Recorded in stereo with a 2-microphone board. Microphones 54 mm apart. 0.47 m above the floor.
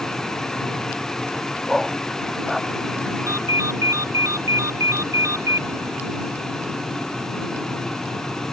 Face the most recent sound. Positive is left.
turn(degrees=-85)